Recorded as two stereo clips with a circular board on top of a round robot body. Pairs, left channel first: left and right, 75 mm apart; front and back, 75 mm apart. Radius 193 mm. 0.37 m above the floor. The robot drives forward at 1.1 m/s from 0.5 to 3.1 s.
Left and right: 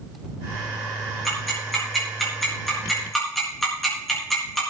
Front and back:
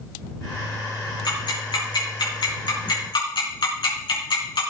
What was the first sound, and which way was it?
Ticking, straight ahead.